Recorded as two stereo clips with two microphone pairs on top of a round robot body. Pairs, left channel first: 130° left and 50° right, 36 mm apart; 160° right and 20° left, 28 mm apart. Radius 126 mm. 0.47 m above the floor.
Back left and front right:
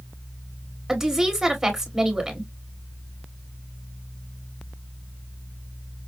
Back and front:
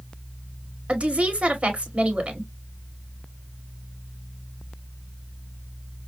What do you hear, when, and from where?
0.9 s a woman speaking: 35° left, 2 m